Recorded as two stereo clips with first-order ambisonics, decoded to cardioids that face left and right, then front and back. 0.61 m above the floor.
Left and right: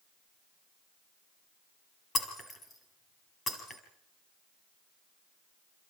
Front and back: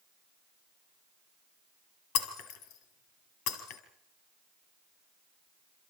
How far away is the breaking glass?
About 3.5 m.